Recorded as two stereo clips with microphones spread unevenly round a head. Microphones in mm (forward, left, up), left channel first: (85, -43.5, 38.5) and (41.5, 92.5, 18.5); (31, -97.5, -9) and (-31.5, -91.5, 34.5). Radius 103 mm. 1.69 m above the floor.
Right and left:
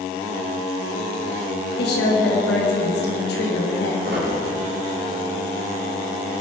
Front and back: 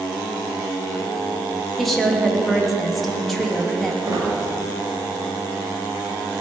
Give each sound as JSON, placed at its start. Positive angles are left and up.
{"t": 1.8, "sound": "a woman speaking", "azimuth_deg": -95, "distance_m": 3.0}
{"t": 4.0, "sound": "a squeak", "azimuth_deg": 155, "distance_m": 4.5}